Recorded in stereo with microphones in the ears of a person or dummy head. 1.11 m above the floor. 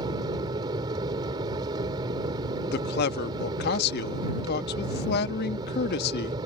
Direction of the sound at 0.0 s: 25° right (ahead or behind).